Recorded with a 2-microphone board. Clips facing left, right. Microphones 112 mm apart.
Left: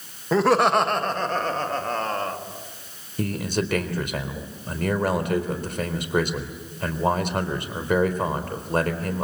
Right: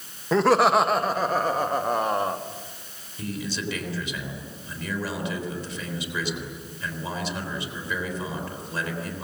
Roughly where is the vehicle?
No vehicle in this recording.